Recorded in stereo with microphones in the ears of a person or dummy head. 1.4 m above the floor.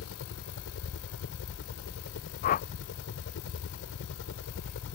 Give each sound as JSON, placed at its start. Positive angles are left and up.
{"t": 0.0, "sound": "a helicopter", "side_deg": 70}
{"t": 2.4, "sound": "a whoosh", "side_deg": 50}